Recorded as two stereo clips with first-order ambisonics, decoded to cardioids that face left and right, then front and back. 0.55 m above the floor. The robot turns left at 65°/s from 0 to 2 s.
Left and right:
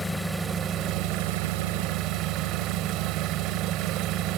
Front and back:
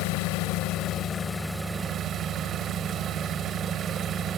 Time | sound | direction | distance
0.0 | an engine running | 10° left | 1.6 m